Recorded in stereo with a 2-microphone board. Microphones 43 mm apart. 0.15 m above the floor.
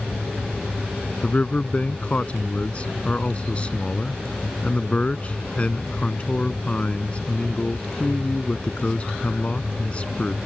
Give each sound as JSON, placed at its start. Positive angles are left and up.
{"t": 1.2, "sound": "a man speaking", "side_deg": 30}